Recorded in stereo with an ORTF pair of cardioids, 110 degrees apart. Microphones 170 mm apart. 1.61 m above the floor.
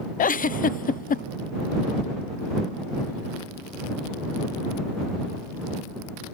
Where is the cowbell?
No cowbell in this recording.